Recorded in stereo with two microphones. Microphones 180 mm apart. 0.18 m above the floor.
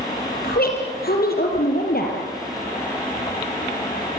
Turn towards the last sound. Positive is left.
turn(degrees=55)  # may be behind; listen again after turning